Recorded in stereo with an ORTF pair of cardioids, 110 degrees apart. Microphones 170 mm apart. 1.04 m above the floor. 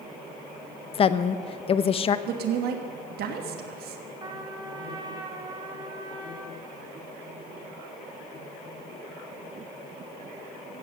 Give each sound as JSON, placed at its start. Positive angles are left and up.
{"t": 0.9, "sound": "a woman speaking", "azimuth_deg": 35, "distance_m": 0.6}
{"t": 2.3, "sound": "a woman speaking", "azimuth_deg": -65, "distance_m": 1.3}
{"t": 4.2, "sound": "a trumpet", "azimuth_deg": -25, "distance_m": 2.0}